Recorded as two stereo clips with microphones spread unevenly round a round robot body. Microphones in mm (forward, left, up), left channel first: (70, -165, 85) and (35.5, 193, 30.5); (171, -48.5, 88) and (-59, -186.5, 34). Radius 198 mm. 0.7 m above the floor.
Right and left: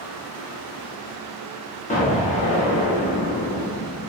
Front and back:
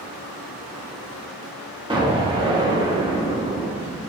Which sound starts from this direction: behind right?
An explosion, at 1.9 s.